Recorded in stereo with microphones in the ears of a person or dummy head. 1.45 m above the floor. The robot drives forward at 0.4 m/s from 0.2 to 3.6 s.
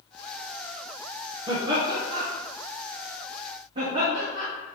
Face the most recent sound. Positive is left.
turn(degrees=-40)  # may be behind; listen again after turning